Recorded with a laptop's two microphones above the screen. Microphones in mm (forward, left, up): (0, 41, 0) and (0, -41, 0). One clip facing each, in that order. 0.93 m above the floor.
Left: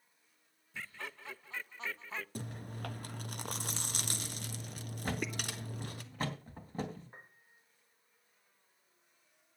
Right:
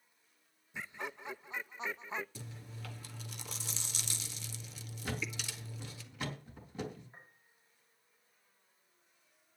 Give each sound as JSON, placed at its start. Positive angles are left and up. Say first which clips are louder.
{"t": 0.7, "sound": "laughter", "louder": "right 3 dB", "side_deg": -20, "distance_m": 0.6}
{"t": 2.4, "sound": "chewing", "louder": "left 6 dB", "side_deg": 55, "distance_m": 1.3}
{"t": 5.0, "sound": "a thud", "louder": "left 3 dB", "side_deg": 40, "distance_m": 3.5}
{"t": 7.1, "sound": "a piano", "louder": "left 2 dB", "side_deg": 75, "distance_m": 4.0}